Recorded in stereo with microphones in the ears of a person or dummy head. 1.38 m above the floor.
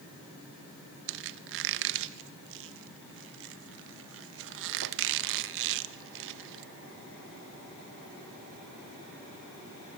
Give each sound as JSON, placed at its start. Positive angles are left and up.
{"t": 1.1, "sound": "a squeak", "side_deg": -65, "distance_m": 0.9}